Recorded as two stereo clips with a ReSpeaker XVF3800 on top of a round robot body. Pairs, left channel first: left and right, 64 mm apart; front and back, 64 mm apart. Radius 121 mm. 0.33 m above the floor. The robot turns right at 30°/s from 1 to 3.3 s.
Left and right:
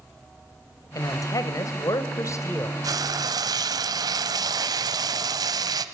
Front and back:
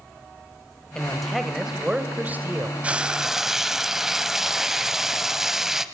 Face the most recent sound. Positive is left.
turn(degrees=-95)